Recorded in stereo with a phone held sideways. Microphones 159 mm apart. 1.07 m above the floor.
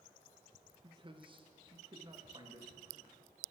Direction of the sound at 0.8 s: 30° right (ahead or behind).